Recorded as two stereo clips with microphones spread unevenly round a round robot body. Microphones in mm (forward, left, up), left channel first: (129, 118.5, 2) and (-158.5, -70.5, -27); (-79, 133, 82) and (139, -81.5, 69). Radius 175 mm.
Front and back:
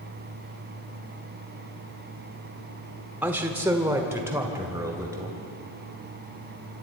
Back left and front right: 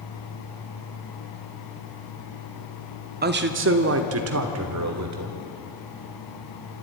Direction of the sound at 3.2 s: 70° right.